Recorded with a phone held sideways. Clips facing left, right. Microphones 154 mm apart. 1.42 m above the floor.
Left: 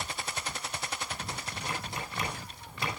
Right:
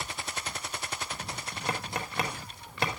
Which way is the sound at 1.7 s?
80° right.